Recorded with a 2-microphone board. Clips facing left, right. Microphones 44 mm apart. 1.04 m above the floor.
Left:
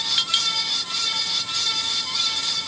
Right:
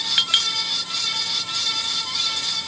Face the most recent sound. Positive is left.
turn(degrees=-30)  # may be behind; listen again after turning